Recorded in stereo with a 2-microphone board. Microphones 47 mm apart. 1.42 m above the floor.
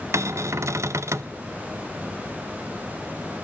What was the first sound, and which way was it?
A cupboard door, 75° right (ahead or behind).